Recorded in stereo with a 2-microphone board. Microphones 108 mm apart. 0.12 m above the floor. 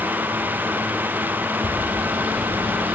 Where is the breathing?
I don't hear breathing.